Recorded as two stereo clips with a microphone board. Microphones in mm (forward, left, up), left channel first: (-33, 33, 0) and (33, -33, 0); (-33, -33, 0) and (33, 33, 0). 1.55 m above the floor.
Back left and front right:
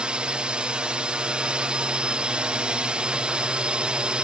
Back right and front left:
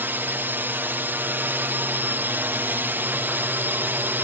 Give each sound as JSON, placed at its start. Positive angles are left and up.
{"t": 0.0, "sound": "a drone", "azimuth_deg": 15}